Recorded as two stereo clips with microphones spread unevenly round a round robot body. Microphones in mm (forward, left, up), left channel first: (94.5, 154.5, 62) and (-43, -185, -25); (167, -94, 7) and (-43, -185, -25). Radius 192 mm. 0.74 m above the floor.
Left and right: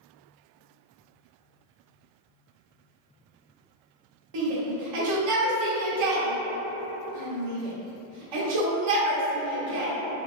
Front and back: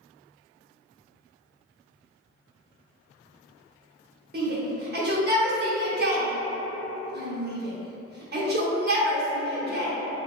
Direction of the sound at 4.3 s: 115° right.